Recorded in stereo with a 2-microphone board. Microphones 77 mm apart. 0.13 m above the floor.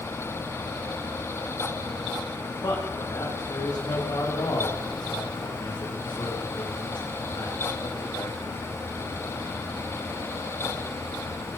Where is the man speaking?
60° left (ahead or behind), 7 m; by 8.4 s 80° left, 7 m.